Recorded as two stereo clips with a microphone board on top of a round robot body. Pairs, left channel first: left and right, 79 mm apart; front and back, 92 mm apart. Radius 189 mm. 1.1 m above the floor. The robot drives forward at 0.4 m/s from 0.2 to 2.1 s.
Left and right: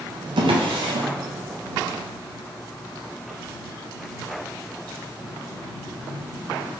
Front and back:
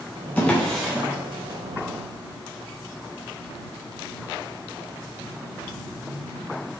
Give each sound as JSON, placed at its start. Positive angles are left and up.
{"t": 0.4, "sound": "a drawer", "azimuth_deg": -75, "distance_m": 0.6}